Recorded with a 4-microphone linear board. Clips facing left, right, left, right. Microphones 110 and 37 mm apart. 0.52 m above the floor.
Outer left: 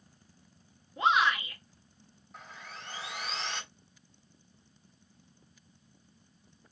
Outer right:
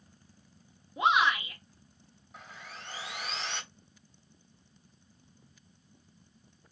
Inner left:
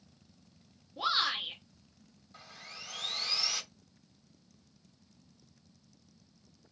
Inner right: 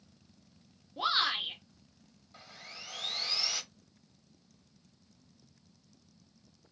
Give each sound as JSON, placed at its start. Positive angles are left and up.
{"t": 1.0, "sound": "a shout", "side_deg": -15, "distance_m": 0.7}
{"t": 2.3, "sound": "sawing", "side_deg": 0, "distance_m": 0.7}